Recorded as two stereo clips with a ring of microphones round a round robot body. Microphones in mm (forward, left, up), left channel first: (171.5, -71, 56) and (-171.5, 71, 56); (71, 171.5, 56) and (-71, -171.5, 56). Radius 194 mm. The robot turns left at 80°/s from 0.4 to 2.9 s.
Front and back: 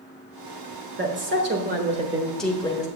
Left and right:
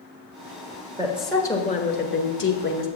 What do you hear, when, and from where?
1.0 s a woman speaking: straight behind, 1.3 m; by 2.9 s 30° left, 1.3 m